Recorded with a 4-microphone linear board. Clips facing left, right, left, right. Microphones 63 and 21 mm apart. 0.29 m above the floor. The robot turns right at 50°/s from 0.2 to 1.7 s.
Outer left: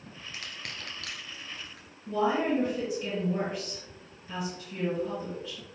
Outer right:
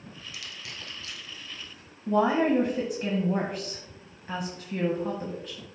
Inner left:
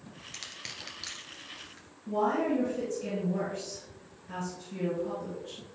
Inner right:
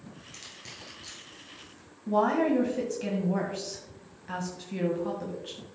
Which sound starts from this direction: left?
Crushing, at 0.3 s.